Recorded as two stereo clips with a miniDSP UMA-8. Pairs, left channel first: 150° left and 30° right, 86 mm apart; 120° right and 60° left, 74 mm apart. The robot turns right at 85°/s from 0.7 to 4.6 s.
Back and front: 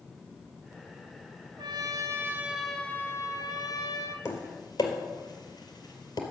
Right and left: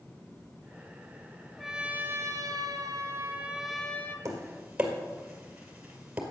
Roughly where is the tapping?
Left.